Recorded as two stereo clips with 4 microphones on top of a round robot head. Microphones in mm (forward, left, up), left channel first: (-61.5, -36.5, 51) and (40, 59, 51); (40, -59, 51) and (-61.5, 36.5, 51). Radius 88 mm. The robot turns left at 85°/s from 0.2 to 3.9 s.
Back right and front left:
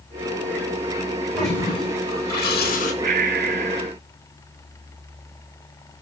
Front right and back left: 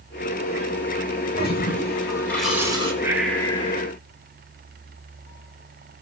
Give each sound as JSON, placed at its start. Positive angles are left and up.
{"t": 1.4, "sound": "a toilet flushing", "azimuth_deg": -40, "distance_m": 9.5}
{"t": 3.0, "sound": "breathing", "azimuth_deg": 65, "distance_m": 2.0}